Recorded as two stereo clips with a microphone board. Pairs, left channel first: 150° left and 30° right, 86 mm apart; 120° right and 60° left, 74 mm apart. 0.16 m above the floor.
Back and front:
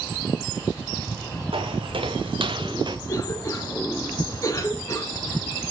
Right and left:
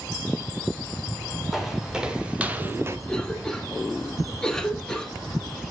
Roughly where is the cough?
Behind.